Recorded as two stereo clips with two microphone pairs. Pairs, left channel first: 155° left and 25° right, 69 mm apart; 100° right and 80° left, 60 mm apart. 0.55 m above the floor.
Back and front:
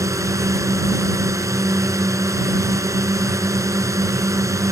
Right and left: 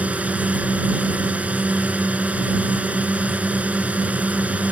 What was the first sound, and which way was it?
A drone, 15° left.